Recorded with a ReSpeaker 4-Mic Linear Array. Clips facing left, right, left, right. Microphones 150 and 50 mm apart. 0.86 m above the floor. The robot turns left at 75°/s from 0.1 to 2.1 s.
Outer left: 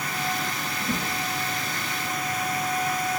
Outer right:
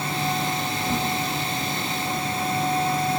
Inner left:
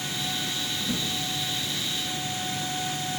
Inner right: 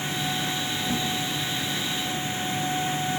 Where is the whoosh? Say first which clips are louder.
Outer right 3 dB, inner right 3 dB; 50° right (ahead or behind), 2.5 m; by 1.1 s 25° right (ahead or behind), 2.5 m.